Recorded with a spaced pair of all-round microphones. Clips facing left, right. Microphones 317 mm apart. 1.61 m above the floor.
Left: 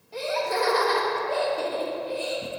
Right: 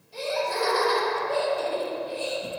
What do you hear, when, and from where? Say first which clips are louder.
0.1 s laughter: left 1 dB; 70° left (ahead or behind), 1.0 m